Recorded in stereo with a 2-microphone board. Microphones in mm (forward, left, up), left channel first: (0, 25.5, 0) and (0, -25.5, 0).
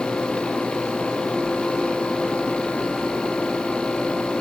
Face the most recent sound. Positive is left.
No sound to turn to.